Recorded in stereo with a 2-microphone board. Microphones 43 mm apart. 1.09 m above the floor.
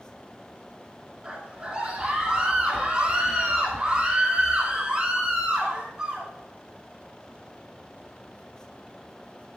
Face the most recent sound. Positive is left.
turn(degrees=-25)  # may be behind; listen again after turning